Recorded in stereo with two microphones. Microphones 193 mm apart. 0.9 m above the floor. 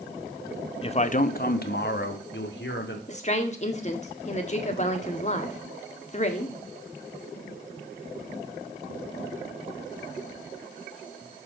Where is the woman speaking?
35° left (ahead or behind), 1.5 m.